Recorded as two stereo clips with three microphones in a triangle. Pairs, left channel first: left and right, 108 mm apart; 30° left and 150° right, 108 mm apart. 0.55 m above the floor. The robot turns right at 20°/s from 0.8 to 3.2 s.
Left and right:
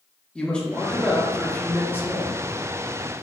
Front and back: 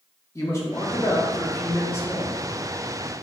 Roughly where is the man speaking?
Ahead.